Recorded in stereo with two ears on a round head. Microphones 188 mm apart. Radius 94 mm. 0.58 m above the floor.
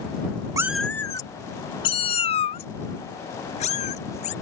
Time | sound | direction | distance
0.6 | a cat meowing | 15° right (ahead or behind) | ?